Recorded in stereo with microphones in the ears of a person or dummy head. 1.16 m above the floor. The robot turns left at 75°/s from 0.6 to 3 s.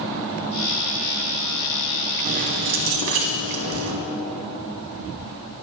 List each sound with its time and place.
2.2 s keys jangling: 30° right, 1.7 m; by 4.0 s 85° right, 1.7 m